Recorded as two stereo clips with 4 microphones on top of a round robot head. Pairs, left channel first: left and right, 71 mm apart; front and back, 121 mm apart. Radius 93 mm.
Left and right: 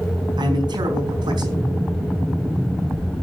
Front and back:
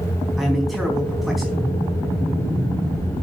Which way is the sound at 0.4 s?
90° right.